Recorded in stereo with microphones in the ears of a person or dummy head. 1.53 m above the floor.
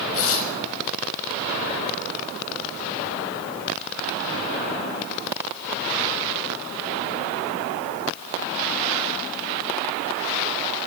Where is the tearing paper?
75° left (ahead or behind), 5.5 m.